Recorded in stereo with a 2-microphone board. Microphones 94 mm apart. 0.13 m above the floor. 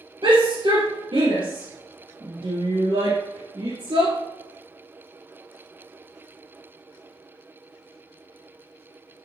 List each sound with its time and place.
0.2 s a shout: 55° right (ahead or behind), 2.5 m